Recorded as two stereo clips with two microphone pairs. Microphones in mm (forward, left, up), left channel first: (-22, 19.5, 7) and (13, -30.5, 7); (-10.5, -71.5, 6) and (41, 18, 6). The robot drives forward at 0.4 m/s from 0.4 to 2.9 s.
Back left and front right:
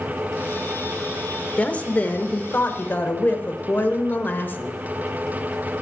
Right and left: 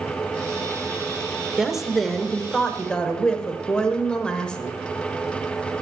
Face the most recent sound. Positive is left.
turn(degrees=165)